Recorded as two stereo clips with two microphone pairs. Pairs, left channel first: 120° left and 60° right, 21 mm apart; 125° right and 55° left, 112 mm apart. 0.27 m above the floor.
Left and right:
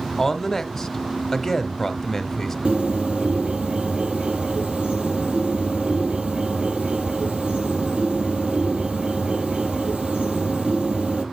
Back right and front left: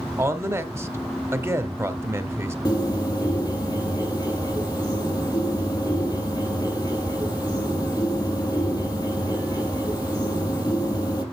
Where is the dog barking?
I don't hear a dog barking.